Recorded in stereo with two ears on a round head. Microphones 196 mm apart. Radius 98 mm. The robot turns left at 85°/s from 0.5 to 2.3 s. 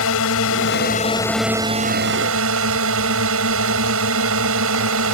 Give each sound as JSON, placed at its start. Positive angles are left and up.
{"t": 0.0, "sound": "a drone", "azimuth_deg": 75}